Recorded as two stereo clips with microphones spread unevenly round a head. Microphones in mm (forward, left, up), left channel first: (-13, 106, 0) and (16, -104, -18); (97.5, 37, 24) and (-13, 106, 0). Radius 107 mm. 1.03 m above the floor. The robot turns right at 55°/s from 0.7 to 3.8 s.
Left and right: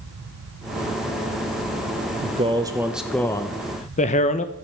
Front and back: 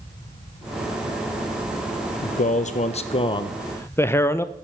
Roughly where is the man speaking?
Ahead right.